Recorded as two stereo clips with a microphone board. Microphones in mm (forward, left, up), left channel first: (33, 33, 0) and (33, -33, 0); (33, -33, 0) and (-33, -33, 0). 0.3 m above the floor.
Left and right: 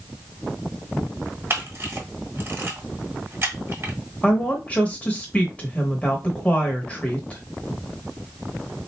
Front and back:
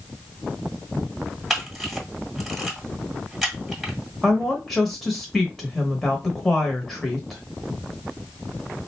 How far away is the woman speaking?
About 0.9 m.